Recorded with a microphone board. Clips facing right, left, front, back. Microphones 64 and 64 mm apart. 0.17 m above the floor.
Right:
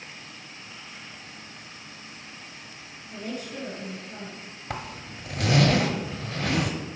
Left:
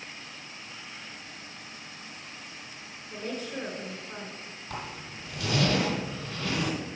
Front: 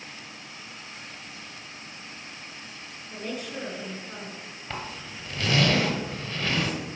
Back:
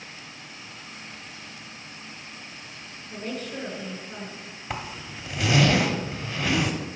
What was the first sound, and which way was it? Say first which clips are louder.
A woman speaking: even, back 1 dB; 75° left.